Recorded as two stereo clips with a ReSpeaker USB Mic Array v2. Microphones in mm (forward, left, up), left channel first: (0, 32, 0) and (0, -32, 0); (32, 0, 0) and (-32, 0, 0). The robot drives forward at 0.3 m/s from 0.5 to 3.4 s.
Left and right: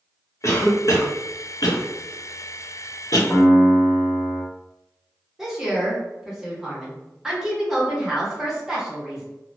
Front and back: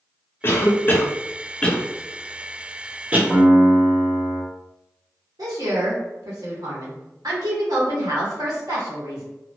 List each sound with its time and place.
0.4 s a cough: 50° left, 0.8 m; by 3.2 s 115° left, 0.7 m
3.3 s a piano: 175° left, 1.7 m
5.4 s a woman speaking: 175° right, 1.0 m